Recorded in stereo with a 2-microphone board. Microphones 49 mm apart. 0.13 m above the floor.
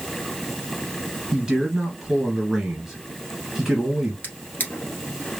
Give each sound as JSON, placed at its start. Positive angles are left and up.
{"t": 1.3, "sound": "a man speaking", "side_deg": -15, "distance_m": 1.8}
{"t": 4.2, "sound": "a drawer", "side_deg": 40, "distance_m": 1.4}